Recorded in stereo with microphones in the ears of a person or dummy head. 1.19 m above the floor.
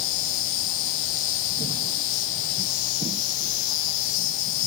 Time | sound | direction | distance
0.0 | an insect | 45° left (ahead or behind) | 3 m